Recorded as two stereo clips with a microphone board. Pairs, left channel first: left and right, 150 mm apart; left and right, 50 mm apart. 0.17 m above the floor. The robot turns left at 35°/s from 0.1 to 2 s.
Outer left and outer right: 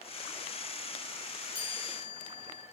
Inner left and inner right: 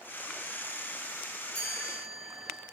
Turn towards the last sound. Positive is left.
turn(degrees=5)  # may be behind; listen again after turning